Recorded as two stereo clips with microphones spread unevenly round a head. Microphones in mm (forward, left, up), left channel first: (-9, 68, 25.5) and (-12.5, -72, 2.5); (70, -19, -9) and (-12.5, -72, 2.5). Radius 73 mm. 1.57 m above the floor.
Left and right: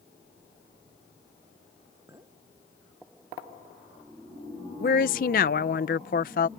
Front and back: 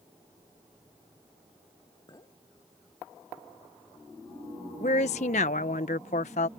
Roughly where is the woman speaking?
Ahead left.